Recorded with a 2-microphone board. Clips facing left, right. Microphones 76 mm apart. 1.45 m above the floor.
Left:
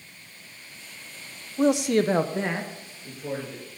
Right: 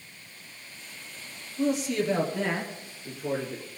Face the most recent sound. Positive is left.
turn(degrees=0)  # may be behind; listen again after turning